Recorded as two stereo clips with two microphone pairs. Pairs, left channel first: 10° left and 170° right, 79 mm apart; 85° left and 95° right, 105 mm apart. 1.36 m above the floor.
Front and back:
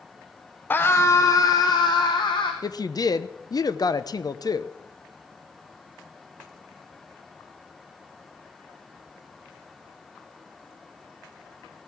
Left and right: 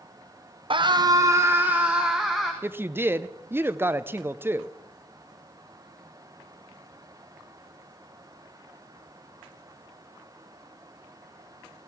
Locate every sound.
0.7 s a scream: 60° right, 0.7 m; by 2.5 s 5° right, 1.2 m
2.6 s a woman speaking: 30° right, 0.5 m